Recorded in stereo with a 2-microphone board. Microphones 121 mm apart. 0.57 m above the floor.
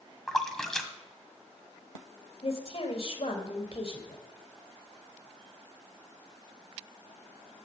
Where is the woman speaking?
55° left (ahead or behind), 3 m.